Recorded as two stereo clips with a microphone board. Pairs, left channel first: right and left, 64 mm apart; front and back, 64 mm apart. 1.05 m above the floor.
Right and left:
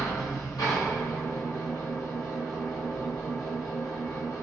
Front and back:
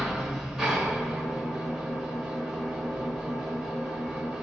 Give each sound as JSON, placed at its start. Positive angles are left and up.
{"t": 0.0, "sound": "an engine running", "azimuth_deg": -105, "distance_m": 0.9}